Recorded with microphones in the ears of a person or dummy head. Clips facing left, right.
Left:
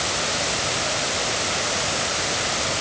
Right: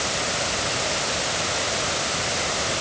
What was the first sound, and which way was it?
Only background noise.